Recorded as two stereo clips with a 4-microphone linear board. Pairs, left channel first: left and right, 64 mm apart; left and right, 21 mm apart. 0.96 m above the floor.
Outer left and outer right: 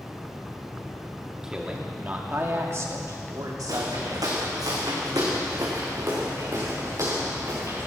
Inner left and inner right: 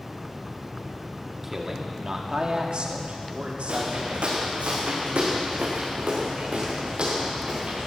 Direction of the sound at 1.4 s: 10° right (ahead or behind).